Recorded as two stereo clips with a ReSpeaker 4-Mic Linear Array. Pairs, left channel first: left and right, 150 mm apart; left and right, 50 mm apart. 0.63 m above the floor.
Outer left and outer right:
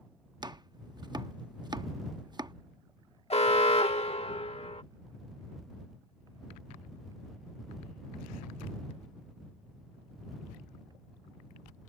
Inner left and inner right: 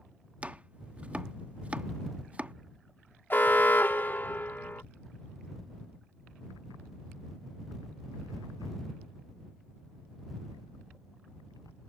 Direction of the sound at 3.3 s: 40° left (ahead or behind).